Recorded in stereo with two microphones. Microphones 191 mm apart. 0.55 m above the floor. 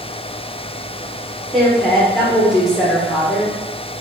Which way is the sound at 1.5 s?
Centre (ahead or behind).